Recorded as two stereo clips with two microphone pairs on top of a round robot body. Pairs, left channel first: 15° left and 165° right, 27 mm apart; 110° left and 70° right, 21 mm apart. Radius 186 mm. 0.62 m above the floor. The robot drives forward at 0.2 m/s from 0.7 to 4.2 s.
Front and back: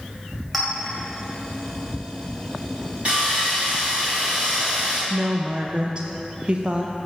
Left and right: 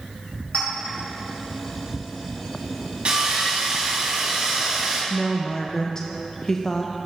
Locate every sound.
0.5 s a clink: 105° left, 2 m
3.0 s sawing: 110° right, 0.9 m; by 5.0 s 125° right, 1.0 m
5.1 s a woman speaking: 160° left, 0.6 m